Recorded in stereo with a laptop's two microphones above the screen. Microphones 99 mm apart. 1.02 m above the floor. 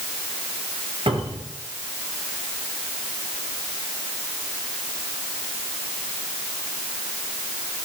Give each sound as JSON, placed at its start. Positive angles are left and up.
{"t": 1.1, "sound": "a cupboard door", "side_deg": -65, "distance_m": 10.0}